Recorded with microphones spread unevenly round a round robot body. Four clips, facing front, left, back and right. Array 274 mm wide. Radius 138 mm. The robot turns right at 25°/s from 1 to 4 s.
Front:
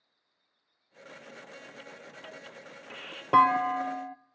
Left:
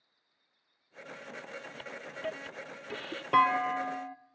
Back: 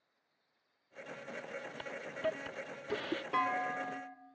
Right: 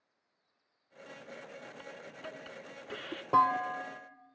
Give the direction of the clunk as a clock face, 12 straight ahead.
12 o'clock.